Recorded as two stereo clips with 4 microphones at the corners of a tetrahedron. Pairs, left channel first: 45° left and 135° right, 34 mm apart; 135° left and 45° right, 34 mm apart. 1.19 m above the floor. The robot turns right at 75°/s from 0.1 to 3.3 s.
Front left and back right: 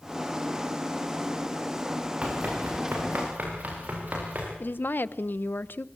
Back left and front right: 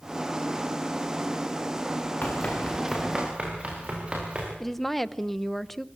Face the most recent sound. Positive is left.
turn(degrees=50)